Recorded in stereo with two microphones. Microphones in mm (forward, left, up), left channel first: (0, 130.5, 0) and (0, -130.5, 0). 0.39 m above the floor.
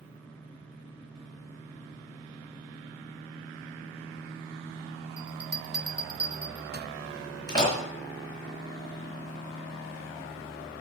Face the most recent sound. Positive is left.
turn(degrees=15)  # may be behind; listen again after turning